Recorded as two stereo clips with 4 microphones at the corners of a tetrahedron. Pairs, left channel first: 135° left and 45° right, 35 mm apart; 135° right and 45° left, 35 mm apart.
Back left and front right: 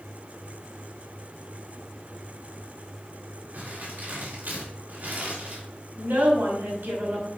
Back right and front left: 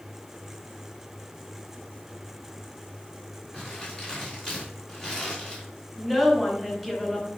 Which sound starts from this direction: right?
Crumpling, at 3.5 s.